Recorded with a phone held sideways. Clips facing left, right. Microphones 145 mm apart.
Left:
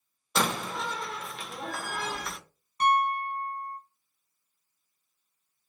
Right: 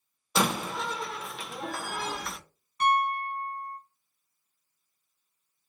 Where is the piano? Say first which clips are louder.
Left 1 dB; 35° left (ahead or behind), 1.2 m.